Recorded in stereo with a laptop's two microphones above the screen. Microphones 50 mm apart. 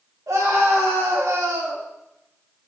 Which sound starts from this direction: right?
A scream, at 0.3 s.